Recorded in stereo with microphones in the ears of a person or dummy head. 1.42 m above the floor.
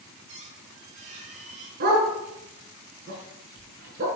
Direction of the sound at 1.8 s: 55° right (ahead or behind).